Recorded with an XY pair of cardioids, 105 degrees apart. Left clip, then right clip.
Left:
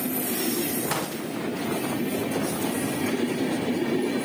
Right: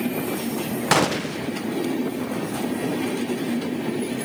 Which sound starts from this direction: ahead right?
A gunshot, at 0.9 s.